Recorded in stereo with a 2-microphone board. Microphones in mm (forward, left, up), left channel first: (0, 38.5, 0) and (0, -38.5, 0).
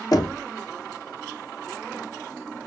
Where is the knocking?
55° left (ahead or behind), 1.0 m.